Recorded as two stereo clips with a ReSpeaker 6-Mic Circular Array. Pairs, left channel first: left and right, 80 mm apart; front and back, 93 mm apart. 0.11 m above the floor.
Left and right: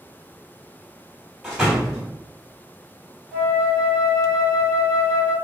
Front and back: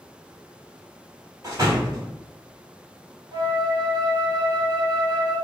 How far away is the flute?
About 1.4 m.